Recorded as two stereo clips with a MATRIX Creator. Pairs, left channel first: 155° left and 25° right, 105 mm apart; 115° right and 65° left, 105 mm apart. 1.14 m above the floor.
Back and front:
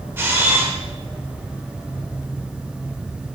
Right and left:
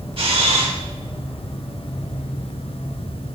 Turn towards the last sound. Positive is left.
turn(degrees=45)